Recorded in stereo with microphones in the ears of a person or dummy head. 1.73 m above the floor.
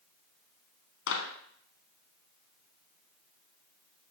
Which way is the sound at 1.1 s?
70° left (ahead or behind).